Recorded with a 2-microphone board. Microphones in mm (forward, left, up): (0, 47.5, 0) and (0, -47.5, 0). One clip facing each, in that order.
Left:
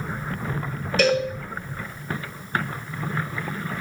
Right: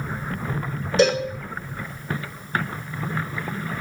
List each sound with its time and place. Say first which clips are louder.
1.0 s a cowbell: right 2 dB; 25° right (ahead or behind), 0.5 m